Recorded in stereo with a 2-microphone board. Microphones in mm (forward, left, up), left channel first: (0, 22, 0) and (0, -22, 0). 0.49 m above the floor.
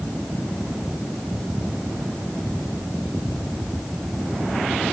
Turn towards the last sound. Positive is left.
No sound to turn to.